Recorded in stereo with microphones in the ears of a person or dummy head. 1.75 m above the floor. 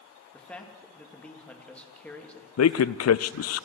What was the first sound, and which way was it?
A man speaking, 10° left (ahead or behind).